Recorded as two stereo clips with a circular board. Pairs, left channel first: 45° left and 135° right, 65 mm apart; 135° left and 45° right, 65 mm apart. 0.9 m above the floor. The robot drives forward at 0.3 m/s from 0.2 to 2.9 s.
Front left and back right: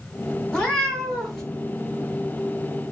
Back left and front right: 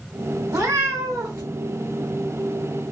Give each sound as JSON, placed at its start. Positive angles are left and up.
{"t": 0.5, "sound": "a cat meowing", "azimuth_deg": -30, "distance_m": 1.1}